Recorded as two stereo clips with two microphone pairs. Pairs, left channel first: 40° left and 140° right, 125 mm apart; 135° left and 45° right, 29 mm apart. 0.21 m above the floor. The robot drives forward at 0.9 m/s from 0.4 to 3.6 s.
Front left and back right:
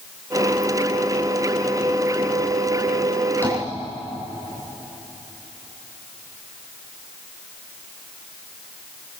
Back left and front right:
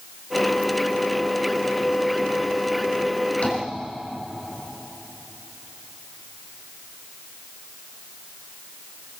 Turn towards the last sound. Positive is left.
turn(degrees=110)